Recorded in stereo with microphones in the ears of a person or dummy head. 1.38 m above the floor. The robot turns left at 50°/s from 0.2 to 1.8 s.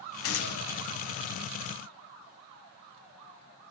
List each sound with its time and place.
0.2 s a gunshot: 65° left (ahead or behind), 1.2 m